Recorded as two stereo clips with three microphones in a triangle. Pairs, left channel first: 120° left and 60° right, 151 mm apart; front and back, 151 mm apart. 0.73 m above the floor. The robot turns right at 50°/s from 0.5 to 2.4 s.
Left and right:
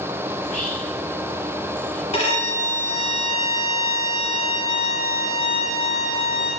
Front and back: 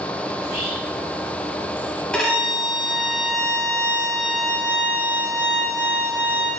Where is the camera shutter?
No camera shutter in this recording.